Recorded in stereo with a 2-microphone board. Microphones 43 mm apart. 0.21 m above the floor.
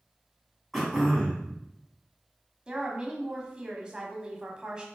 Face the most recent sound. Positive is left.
turn(degrees=-20)  # may be behind; listen again after turning